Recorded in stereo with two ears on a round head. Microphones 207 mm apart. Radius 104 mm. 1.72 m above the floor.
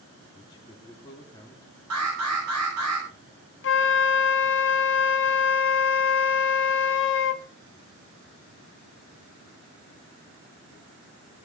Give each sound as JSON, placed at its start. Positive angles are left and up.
{"t": 0.3, "sound": "a man speaking", "side_deg": 20, "distance_m": 3.0}
{"t": 1.9, "sound": "an alarm", "side_deg": -80, "distance_m": 10.0}
{"t": 3.6, "sound": "a flute", "side_deg": 55, "distance_m": 1.2}